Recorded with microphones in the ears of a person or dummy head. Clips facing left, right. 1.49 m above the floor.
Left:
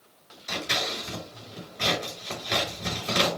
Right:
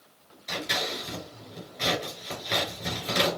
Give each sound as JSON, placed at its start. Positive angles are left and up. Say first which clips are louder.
{"t": 0.5, "sound": "scissors", "louder": "even", "side_deg": 5, "distance_m": 3.0}